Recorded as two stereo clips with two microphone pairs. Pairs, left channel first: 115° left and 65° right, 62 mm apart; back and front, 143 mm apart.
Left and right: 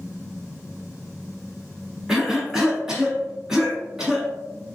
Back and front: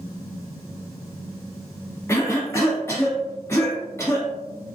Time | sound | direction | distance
2.1 | a cough | 130° right | 1.3 m